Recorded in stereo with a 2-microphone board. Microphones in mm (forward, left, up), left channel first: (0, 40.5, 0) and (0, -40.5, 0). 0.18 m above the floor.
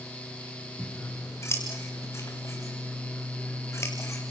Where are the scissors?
30° left (ahead or behind), 4.5 m.